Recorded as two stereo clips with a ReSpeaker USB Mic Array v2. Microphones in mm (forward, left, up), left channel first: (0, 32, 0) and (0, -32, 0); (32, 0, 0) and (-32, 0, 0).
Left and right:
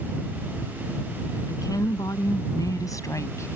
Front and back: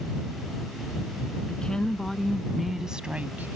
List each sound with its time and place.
1.5 s a woman speaking: 75° left; by 3.6 s 130° left